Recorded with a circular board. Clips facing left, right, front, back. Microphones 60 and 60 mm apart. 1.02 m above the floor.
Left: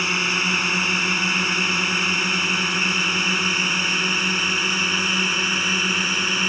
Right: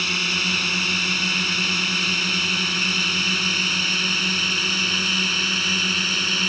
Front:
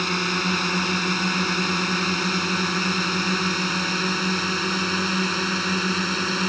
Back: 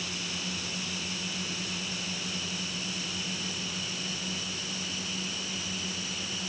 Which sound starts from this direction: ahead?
A drone, at 0.0 s.